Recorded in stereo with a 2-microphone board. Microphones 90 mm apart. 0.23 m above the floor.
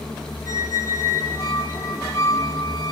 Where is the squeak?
35° left (ahead or behind), 1.0 m.